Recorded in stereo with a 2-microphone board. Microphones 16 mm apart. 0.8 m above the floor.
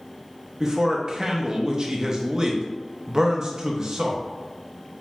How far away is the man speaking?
About 0.7 m.